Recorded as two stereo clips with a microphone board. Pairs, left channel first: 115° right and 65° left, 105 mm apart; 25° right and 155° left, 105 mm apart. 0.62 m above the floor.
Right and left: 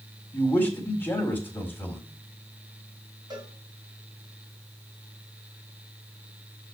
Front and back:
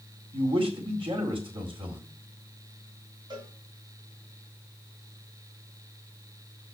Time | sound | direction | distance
0.3 | a man speaking | 175° left | 2.5 m
3.3 | a cowbell | 115° left | 2 m